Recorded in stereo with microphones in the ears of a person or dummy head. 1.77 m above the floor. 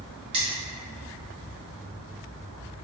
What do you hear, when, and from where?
0.3 s cutlery clinking: 30° right (ahead or behind), 1.6 m